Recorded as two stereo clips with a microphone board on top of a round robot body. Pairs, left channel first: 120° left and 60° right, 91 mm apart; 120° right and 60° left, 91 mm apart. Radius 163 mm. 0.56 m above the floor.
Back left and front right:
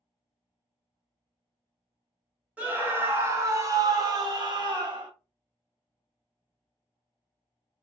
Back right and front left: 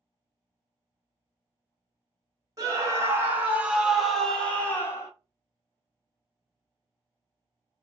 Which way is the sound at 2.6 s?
10° left.